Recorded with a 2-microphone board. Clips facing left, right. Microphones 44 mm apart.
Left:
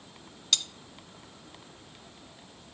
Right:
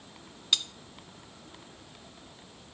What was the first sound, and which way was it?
Cutlery clinking, 15° right (ahead or behind).